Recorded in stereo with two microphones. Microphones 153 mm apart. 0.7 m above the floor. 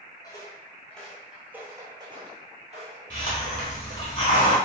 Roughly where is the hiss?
Left.